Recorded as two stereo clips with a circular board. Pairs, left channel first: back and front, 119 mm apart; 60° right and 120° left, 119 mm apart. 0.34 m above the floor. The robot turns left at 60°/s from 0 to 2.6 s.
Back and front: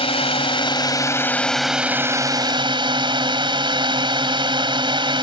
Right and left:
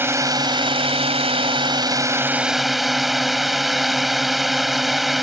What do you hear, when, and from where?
0.0 s a drone: 175° right; by 5.2 s 30° left